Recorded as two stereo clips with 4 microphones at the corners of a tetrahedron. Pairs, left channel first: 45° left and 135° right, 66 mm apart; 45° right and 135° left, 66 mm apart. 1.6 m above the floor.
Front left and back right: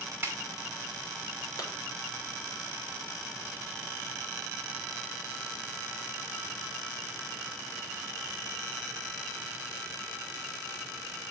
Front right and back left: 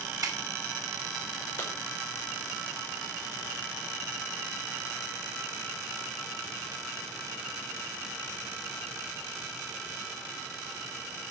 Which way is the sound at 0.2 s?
165° left.